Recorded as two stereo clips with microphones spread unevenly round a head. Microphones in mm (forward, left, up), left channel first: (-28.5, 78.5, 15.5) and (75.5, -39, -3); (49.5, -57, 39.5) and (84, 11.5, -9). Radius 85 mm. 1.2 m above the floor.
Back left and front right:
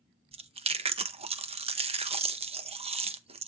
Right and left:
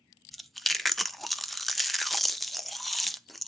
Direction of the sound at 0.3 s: 5° right.